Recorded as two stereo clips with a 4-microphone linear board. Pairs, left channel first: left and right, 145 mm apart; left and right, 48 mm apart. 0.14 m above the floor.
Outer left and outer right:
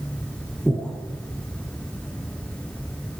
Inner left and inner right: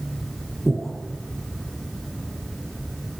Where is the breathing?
5° left (ahead or behind), 5.5 m.